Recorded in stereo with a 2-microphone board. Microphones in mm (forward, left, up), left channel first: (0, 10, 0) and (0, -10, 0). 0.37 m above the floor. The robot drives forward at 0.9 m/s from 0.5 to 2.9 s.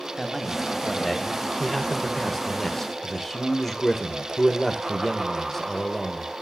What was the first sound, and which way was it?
A man speaking, 5° left (ahead or behind).